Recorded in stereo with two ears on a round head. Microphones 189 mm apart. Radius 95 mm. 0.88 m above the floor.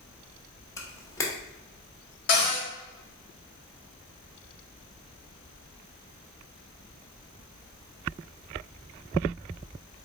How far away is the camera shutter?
About 0.9 m.